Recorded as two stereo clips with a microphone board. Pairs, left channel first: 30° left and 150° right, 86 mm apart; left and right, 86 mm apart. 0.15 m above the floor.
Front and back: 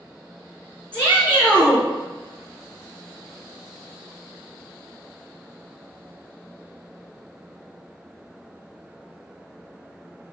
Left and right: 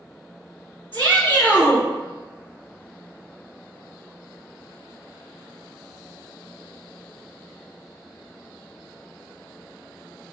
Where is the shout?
155° left, 1.7 m.